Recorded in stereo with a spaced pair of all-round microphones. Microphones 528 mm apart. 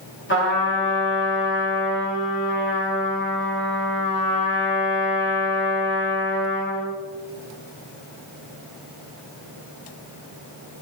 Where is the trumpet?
20° left (ahead or behind), 1.8 m.